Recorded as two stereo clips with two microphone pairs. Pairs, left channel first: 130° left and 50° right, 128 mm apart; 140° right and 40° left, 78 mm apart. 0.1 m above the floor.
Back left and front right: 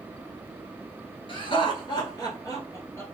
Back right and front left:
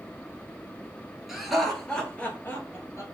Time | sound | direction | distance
1.3 | laughter | 125° left | 1.4 m